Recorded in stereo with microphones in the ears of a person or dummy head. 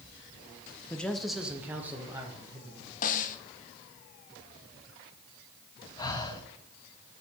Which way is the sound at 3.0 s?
35° left (ahead or behind).